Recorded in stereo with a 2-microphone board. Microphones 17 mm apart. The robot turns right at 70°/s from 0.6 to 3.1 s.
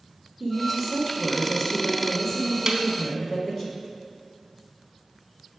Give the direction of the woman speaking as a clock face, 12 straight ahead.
2 o'clock.